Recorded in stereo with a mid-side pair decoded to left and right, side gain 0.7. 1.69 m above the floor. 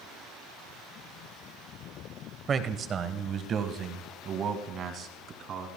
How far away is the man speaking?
About 1.2 m.